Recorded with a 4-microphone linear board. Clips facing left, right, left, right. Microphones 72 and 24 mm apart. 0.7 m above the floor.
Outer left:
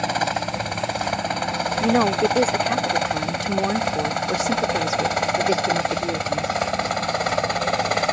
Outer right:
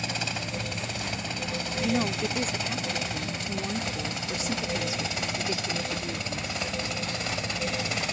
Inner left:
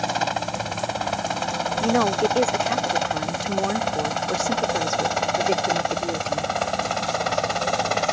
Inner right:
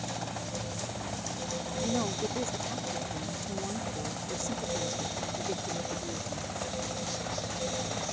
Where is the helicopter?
50° left (ahead or behind); by 8.1 s 55° left (ahead or behind).